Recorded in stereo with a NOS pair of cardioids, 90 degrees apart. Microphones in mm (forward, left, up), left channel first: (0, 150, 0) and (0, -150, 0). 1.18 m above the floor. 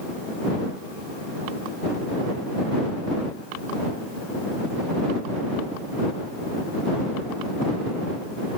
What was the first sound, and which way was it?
Only background noise.